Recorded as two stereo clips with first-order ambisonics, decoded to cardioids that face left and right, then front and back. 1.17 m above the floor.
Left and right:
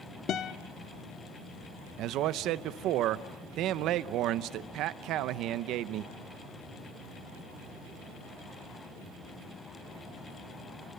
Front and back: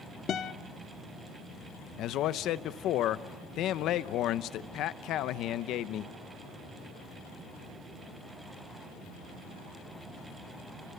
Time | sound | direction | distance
0.3 | a guitar | 45° left | 0.9 m
2.0 | a man speaking | 45° right | 0.7 m